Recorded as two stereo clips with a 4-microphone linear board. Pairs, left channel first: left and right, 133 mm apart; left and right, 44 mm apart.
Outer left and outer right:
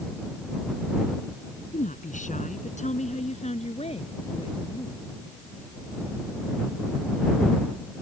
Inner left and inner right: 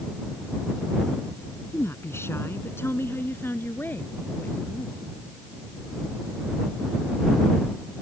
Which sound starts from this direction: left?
A woman speaking, at 1.7 s.